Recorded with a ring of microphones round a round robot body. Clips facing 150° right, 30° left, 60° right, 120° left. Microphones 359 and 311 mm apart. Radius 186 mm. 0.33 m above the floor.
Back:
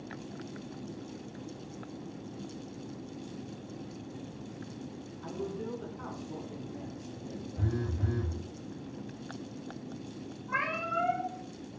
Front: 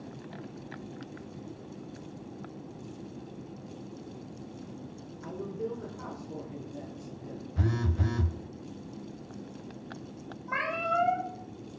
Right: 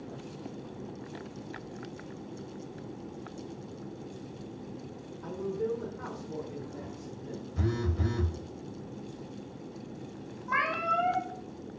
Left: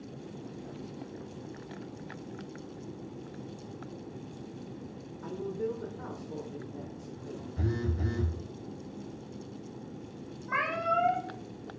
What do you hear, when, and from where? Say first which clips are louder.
5.2 s a man speaking: front 2 dB, right 1 dB; 140° left, 1.0 m; by 7.5 s 90° right, 1.4 m
7.6 s a phone buzzing: front 3 dB, right 1 dB; 20° left, 0.5 m
10.5 s a cat meowing: front 5 dB, left 2 dB; 15° left, 2.5 m